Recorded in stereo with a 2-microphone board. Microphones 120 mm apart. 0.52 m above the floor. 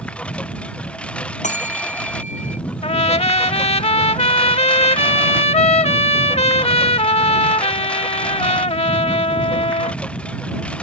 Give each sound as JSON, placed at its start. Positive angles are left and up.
{"t": 0.0, "sound": "a lawn mower", "side_deg": 10}
{"t": 1.4, "sound": "a bell", "side_deg": 85}
{"t": 2.8, "sound": "a trumpet", "side_deg": 55}